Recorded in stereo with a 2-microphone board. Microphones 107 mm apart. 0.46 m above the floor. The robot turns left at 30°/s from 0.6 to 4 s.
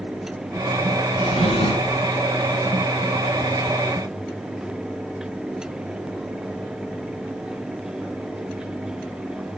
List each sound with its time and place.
1.2 s a drawer: 85° left, 1.9 m; by 2.1 s 55° left (ahead or behind), 1.9 m